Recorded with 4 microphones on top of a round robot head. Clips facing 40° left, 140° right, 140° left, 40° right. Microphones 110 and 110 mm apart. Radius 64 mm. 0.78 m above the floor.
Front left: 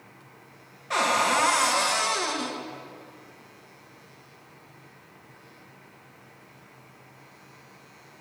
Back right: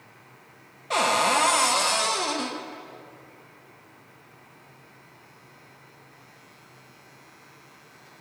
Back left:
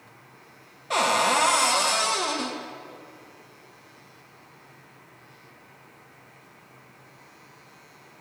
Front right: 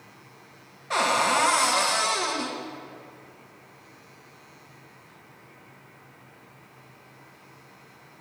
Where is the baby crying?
I don't hear a baby crying.